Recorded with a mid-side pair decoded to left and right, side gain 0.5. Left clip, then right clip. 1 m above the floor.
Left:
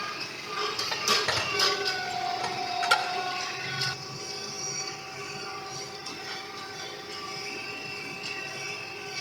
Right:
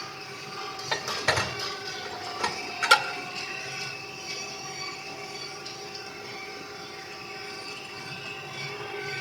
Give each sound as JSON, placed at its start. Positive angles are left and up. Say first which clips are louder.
{"t": 0.9, "sound": "dishes clattering", "louder": "right 1 dB", "azimuth_deg": -35, "distance_m": 2.0}